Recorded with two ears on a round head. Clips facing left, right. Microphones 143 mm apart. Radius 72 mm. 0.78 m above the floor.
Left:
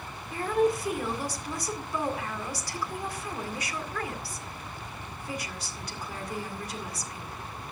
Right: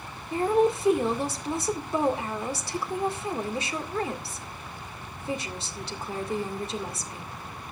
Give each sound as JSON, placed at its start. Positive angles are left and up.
{"t": 0.3, "sound": "a woman speaking", "side_deg": -25, "distance_m": 2.0}